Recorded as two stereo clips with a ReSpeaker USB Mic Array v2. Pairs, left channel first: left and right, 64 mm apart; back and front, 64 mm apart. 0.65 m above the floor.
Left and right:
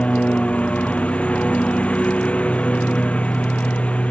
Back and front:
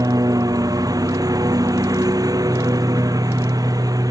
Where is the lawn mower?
20° left.